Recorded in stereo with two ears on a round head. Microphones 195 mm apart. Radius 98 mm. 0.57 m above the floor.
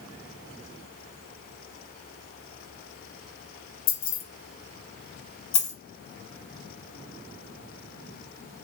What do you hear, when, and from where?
3.9 s keys jangling: 60° left (ahead or behind), 0.8 m
5.5 s a dropped coin: 75° left (ahead or behind), 1.3 m